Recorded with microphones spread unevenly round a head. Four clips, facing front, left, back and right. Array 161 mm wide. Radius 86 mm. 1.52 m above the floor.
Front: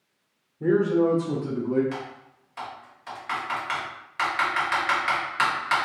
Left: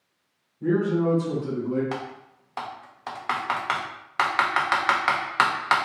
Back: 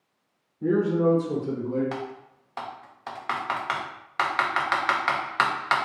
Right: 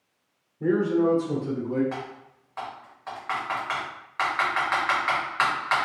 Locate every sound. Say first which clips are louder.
0.6 s a man speaking: right 1 dB, front 1 dB; 35° right, 1.0 m; by 1.8 s 5° right, 2.5 m
1.9 s typing on a keyboard: left 3 dB, back 1 dB; 120° left, 0.7 m